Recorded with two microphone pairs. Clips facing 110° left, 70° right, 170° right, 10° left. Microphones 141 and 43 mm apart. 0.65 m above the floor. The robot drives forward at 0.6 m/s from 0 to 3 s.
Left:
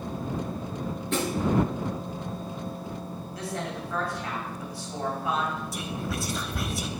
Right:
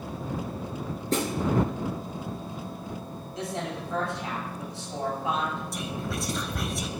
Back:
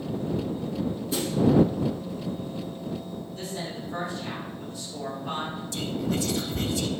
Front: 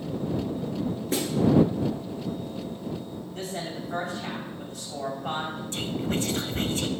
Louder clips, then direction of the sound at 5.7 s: Even, back 1 dB; 20° left.